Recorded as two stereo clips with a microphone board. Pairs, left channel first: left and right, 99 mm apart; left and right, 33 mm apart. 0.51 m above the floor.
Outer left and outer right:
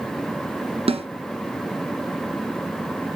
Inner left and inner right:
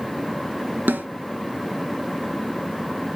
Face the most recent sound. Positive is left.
turn(degrees=-85)